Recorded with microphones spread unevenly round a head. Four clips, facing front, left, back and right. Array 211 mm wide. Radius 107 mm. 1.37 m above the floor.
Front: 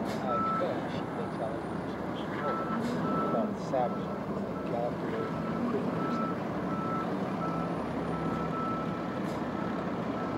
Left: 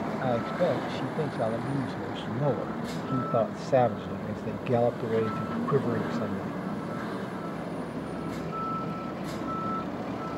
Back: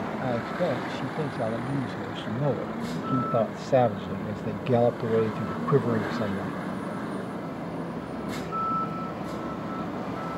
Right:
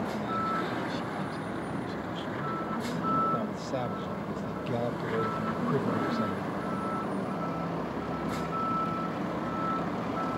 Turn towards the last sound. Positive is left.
turn(degrees=170)